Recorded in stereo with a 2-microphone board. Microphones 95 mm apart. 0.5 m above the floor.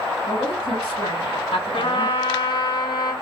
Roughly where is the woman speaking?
Left.